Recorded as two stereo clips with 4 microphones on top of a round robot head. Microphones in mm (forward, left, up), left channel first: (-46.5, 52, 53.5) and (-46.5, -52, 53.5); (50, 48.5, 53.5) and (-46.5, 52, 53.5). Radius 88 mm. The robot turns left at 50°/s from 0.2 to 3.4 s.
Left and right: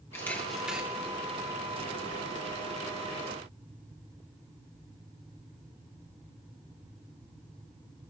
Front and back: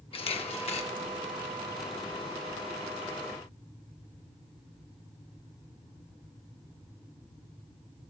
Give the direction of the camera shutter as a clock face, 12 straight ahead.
11 o'clock.